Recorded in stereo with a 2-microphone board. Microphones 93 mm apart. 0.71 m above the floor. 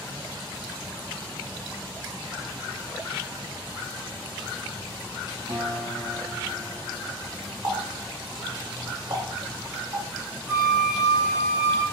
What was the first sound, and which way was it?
A guitar, 80° right.